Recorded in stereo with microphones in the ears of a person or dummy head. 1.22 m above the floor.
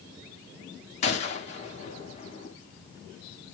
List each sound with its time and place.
1.0 s a gunshot: 30° left (ahead or behind), 0.8 m